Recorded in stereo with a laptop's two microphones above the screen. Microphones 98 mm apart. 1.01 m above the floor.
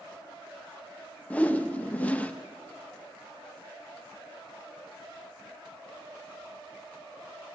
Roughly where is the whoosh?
Centre.